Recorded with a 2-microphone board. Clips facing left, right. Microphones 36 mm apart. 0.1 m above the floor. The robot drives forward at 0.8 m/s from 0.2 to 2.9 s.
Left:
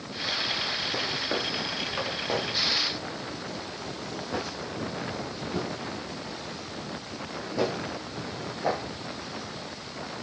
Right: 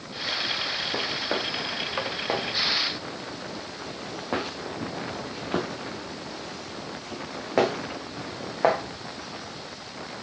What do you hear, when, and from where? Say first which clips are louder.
0.9 s footsteps: right 1 dB; 10° right (ahead or behind), 1.2 m; by 8.8 s 75° right (ahead or behind), 2.5 m